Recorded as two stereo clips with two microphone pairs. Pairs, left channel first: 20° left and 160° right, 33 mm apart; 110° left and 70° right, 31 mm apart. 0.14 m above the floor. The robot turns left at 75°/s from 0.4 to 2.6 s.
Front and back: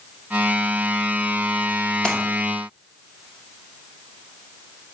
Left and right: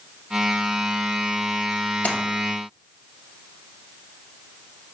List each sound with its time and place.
2.0 s a splash: 80° left, 2 m; by 2.2 s 70° left, 2 m